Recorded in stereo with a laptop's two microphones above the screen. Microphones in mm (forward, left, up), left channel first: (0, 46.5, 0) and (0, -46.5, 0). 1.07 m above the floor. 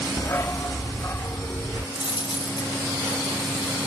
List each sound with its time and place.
0.2 s a dog barking: 35° left (ahead or behind); by 1.9 s 30° left (ahead or behind)
1.9 s a dropped coin: 65° left (ahead or behind)